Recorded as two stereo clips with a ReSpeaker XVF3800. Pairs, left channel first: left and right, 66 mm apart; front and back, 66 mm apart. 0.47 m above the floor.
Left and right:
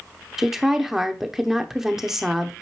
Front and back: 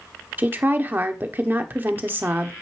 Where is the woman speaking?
165° right, 0.9 m.